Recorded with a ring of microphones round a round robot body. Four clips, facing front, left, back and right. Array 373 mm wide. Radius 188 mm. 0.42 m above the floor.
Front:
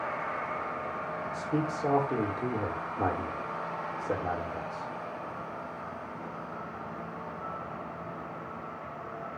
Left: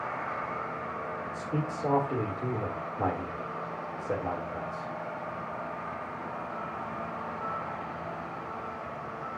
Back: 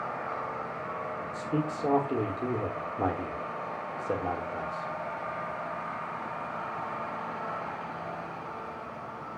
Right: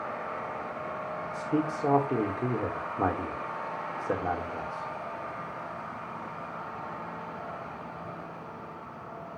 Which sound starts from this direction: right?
A man speaking, at 1.3 s.